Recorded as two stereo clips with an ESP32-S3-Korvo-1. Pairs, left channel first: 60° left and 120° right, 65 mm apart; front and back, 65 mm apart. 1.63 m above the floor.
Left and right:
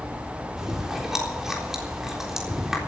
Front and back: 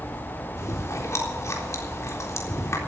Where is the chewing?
40° right, 3.5 m.